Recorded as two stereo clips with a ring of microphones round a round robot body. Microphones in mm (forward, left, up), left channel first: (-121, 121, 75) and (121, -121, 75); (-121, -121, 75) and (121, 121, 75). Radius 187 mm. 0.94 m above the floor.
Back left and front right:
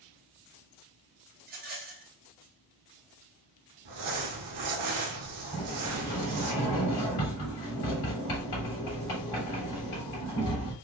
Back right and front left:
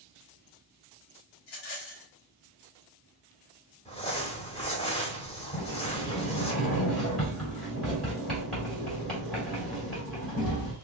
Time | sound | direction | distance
1.4 | a rattle | 110° right | 0.9 m
3.9 | crumpling | 65° right | 1.2 m
5.5 | a sliding door | 135° left | 3 m